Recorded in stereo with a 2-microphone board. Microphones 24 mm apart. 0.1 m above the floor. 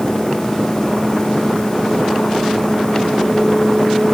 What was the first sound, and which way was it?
Only background noise.